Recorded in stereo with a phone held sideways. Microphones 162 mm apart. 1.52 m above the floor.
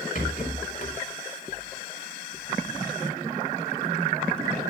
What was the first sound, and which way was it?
A rattle, 55° left (ahead or behind).